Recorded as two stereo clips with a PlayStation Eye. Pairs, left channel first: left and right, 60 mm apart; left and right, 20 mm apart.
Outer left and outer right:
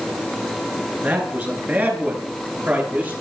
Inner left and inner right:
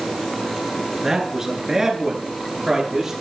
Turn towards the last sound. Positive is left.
turn(degrees=-30)  # may be behind; listen again after turning